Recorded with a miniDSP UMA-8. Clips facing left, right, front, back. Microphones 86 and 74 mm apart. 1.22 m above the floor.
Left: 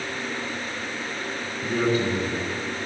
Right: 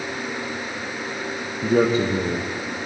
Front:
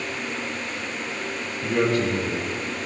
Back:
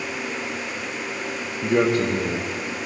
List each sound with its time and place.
1.6 s a man speaking: 115° right, 0.9 m